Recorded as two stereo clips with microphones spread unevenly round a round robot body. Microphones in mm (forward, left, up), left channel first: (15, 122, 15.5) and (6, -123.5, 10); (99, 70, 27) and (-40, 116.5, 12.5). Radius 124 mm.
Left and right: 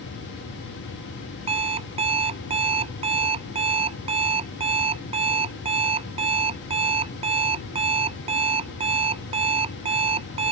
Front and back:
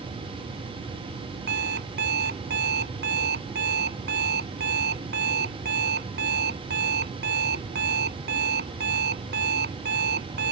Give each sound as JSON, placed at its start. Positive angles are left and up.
{"t": 1.5, "sound": "an alarm clock", "azimuth_deg": -160}